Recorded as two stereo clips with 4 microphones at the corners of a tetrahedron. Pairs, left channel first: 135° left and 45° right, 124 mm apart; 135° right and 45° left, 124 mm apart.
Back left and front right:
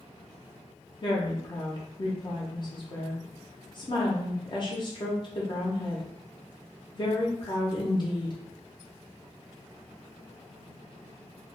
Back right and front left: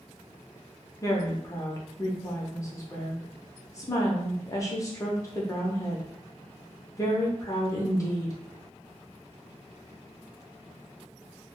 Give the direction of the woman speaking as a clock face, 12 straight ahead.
6 o'clock.